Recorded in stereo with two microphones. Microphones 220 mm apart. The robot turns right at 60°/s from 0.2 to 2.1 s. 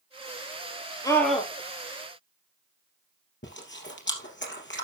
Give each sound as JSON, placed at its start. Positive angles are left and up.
{"t": 1.0, "sound": "a scream", "side_deg": 15, "distance_m": 4.5}
{"t": 3.4, "sound": "chewing", "side_deg": 55, "distance_m": 2.5}